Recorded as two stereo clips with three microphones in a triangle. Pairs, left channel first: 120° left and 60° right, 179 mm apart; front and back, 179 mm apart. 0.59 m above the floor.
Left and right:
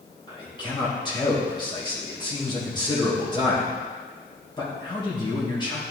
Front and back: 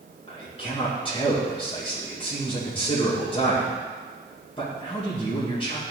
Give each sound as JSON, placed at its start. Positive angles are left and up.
{"t": 0.3, "sound": "a man speaking", "azimuth_deg": 60, "distance_m": 2.5}